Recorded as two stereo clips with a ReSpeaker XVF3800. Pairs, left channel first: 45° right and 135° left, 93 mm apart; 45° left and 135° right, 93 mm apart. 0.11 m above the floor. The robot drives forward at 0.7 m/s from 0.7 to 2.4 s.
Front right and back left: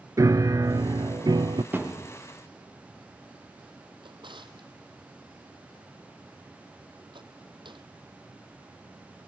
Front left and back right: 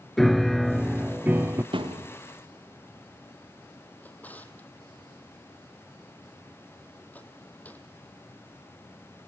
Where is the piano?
130° left, 0.5 m; by 1.6 s 165° left, 1.0 m.